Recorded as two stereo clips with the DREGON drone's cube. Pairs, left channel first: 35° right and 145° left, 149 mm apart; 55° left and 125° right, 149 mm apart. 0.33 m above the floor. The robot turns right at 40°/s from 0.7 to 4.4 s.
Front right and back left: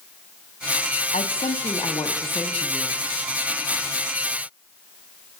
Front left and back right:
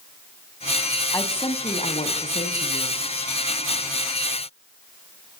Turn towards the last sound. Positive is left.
turn(degrees=120)